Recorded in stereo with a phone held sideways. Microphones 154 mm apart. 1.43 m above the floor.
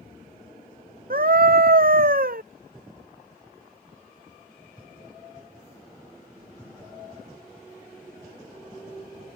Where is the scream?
65° right (ahead or behind).